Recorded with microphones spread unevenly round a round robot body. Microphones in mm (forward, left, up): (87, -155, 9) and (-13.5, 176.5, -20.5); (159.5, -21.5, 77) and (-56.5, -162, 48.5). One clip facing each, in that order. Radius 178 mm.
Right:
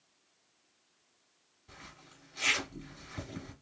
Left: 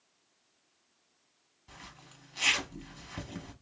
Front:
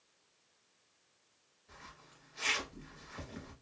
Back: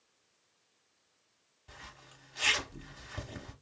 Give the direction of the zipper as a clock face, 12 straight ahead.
6 o'clock.